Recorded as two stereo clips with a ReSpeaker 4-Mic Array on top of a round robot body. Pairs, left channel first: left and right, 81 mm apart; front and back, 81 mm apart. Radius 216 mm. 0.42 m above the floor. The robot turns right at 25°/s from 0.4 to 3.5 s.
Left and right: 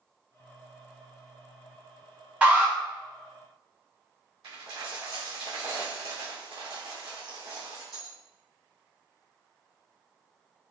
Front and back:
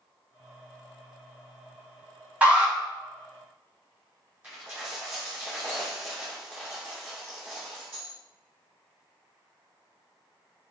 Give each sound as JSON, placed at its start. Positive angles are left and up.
{"t": 2.4, "sound": "an alarm", "azimuth_deg": -135, "distance_m": 1.5}
{"t": 4.4, "sound": "a dropped coin", "azimuth_deg": -110, "distance_m": 1.9}